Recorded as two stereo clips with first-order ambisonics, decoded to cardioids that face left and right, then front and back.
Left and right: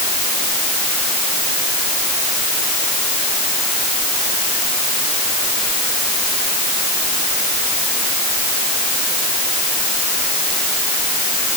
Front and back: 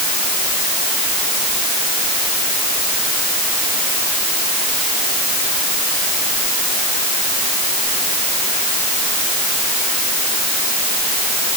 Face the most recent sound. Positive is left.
No sound to turn to.